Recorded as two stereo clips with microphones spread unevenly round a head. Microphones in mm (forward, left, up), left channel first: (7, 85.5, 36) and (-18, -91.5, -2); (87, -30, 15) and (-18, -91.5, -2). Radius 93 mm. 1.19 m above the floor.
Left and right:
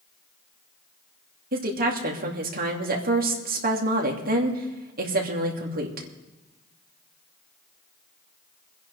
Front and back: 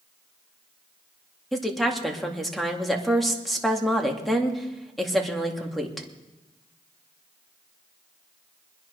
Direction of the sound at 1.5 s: 60° right.